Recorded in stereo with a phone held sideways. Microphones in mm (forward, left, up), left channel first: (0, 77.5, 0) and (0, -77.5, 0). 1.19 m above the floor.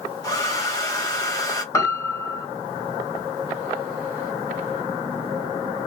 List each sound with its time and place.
0.2 s a hair dryer: 20° left (ahead or behind), 1.6 m
1.7 s a piano: 20° left (ahead or behind), 1.3 m